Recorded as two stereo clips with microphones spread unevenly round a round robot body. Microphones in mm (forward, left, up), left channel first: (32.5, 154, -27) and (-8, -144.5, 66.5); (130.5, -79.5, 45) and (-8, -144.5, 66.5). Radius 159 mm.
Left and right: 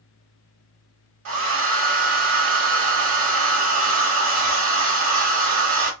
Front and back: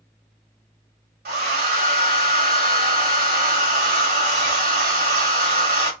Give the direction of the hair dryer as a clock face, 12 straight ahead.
5 o'clock.